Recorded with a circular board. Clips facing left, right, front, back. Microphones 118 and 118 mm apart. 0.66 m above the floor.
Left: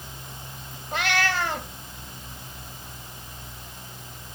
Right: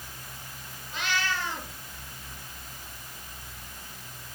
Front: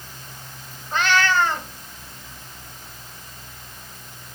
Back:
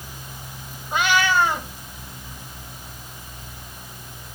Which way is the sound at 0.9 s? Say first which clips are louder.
Left 6 dB, even; 100° left.